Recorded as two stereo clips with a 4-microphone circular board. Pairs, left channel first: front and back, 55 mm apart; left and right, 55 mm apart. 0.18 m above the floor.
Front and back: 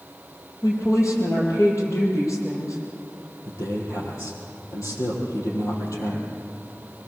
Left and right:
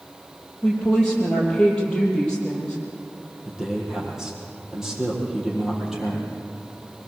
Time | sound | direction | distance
0.6 | a woman speaking | 15° left | 6.5 m
3.5 | a man speaking | 10° right | 5.5 m